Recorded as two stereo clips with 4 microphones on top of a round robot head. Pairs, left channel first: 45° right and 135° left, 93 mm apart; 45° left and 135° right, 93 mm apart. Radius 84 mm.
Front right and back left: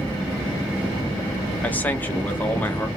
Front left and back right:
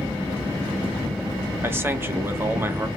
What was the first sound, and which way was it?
A man speaking, 100° right.